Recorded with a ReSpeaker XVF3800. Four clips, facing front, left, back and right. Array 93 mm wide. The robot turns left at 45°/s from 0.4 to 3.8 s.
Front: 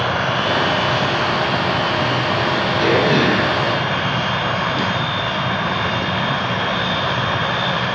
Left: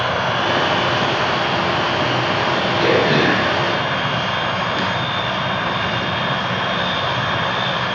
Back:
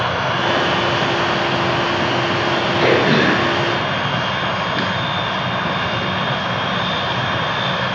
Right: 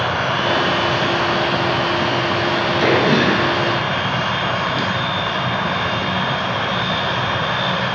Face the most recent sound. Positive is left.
turn(degrees=160)